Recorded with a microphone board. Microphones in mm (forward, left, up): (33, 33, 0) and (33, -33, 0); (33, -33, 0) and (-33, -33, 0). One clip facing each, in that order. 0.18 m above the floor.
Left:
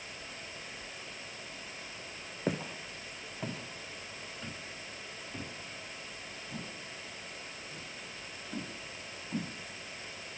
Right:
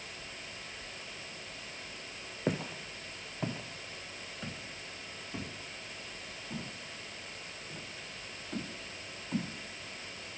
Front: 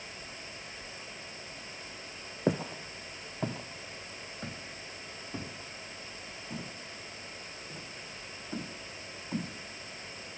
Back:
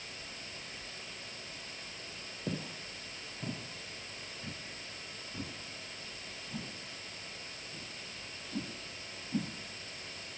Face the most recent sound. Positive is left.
turn(degrees=-25)